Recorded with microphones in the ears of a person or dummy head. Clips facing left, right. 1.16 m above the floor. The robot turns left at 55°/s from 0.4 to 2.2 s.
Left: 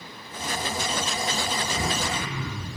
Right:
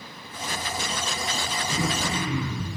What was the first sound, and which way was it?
Throat clearing, 15° right (ahead or behind).